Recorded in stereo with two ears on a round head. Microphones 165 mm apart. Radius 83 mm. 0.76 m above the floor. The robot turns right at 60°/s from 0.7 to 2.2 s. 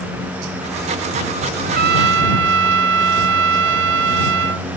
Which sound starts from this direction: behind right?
A trumpet, at 1.6 s.